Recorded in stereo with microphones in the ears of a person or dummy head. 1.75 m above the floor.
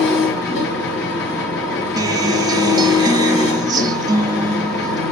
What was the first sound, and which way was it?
An engine running, 65° left (ahead or behind).